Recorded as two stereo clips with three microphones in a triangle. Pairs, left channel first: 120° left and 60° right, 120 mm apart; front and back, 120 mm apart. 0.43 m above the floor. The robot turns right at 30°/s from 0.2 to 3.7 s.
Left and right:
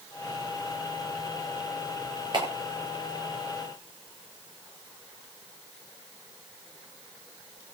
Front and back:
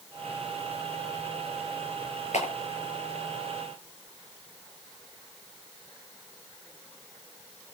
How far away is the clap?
About 9.5 m.